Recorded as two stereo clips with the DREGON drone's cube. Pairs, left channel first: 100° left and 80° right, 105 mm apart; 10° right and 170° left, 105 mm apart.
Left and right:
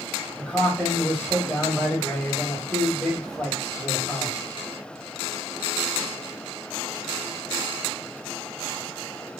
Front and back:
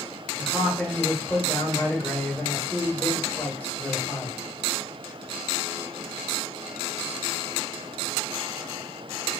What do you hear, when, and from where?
0.4 s a man speaking: 30° left, 1.5 m